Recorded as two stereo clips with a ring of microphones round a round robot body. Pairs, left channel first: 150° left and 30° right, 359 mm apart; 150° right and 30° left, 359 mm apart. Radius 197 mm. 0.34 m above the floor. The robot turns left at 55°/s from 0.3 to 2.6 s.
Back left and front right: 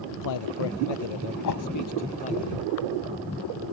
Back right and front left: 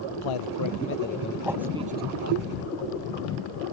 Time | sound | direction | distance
0.1 | a man speaking | 170° right | ?
1.4 | a whoosh | 115° left | ?